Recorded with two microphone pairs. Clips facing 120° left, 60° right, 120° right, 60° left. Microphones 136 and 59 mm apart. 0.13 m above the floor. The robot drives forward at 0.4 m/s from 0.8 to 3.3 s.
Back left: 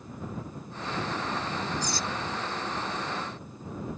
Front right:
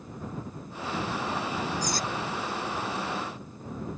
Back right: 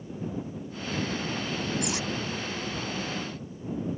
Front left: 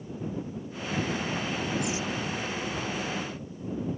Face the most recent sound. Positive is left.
turn(degrees=-110)